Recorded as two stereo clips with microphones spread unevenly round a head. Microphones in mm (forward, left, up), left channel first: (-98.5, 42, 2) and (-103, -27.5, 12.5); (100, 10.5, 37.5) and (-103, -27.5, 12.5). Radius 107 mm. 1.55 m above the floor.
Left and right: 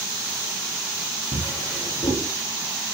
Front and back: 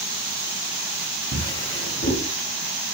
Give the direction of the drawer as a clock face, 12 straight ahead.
11 o'clock.